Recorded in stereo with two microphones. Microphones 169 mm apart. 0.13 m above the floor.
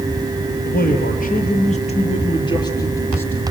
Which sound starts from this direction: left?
A man speaking, at 0.6 s.